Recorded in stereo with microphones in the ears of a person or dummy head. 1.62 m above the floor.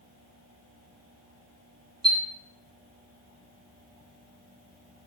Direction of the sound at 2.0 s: 25° right (ahead or behind).